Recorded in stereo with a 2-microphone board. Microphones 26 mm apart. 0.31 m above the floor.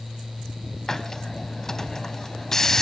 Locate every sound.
0.9 s a hiss: 20° left (ahead or behind), 0.7 m